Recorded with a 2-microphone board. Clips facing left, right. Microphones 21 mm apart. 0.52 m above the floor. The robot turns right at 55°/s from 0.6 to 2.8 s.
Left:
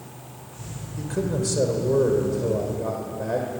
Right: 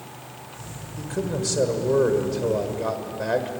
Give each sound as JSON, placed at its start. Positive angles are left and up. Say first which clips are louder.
{"t": 1.0, "sound": "a man speaking", "louder": "left 1 dB", "azimuth_deg": 175, "distance_m": 2.0}